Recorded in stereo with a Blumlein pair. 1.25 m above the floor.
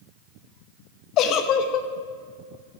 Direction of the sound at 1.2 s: 35° left.